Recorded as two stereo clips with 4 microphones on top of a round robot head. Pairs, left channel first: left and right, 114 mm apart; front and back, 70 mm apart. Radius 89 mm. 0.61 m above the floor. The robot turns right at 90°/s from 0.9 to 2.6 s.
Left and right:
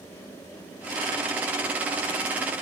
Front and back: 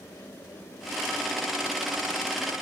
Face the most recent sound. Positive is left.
No sound to turn to.